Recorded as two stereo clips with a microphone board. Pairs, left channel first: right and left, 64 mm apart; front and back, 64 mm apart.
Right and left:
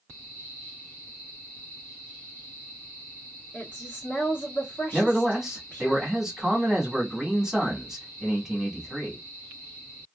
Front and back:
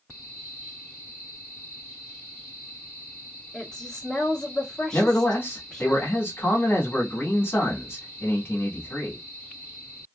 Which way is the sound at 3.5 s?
65° right.